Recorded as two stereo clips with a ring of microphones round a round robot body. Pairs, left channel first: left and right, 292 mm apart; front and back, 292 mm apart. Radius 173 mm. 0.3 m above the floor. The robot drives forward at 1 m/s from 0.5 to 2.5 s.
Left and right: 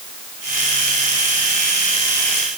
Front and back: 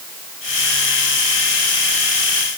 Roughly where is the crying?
No crying in this recording.